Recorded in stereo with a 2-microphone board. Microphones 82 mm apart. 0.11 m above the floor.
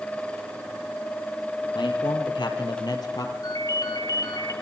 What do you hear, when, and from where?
1.8 s a man speaking: 70° left (ahead or behind), 3.5 m; by 3.3 s 45° left (ahead or behind), 3 m
3.4 s a ringtone: 50° left (ahead or behind), 1.9 m